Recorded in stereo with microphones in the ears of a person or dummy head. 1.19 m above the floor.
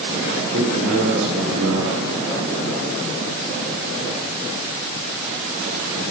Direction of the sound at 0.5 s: 80° right.